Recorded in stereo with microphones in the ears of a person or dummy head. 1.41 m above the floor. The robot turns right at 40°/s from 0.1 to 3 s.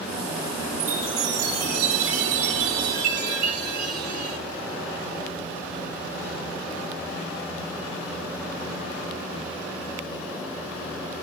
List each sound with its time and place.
0.8 s a chime: 140° right, 0.8 m; by 4.4 s 50° right, 0.8 m